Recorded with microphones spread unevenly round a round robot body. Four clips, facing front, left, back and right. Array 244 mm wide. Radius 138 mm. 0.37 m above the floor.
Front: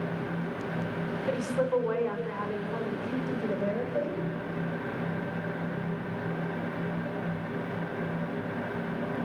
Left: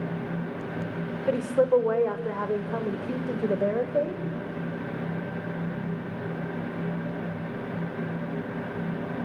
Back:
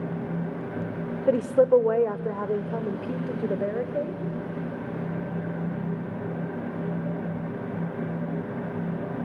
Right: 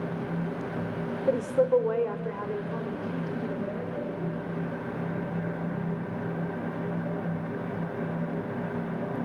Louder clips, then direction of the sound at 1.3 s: Left 1 dB, back 10 dB; 175° right.